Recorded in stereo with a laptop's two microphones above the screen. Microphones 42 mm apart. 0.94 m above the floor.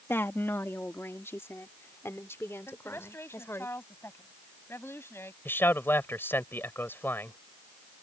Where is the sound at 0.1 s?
65° left (ahead or behind); by 3.7 s 80° left.